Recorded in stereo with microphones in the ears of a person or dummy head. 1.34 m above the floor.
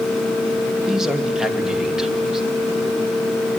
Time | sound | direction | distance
0.9 | a man speaking | 5° right (ahead or behind) | 2 m